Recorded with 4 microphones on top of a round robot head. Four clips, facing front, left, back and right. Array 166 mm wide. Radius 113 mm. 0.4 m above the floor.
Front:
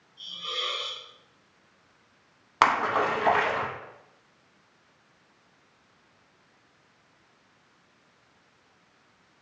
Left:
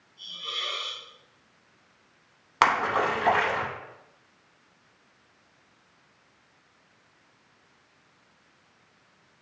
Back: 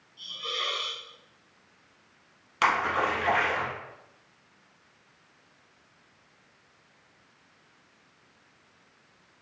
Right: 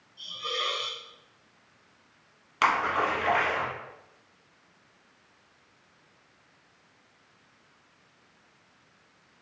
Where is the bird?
I don't hear a bird.